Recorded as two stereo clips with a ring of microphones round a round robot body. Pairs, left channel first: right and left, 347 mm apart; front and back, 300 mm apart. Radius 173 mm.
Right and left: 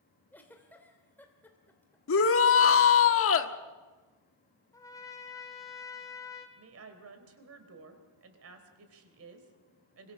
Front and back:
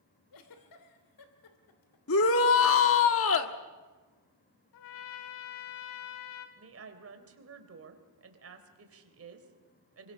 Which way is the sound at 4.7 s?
10° right.